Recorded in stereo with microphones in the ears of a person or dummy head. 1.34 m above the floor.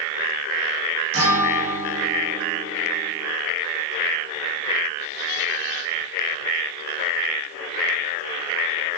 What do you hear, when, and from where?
1.1 s a guitar: 65° right (ahead or behind), 1.8 m